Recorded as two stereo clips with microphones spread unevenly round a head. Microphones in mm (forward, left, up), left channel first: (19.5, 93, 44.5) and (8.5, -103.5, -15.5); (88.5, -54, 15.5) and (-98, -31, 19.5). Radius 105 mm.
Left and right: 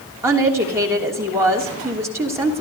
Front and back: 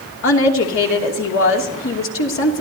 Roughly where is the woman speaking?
Ahead.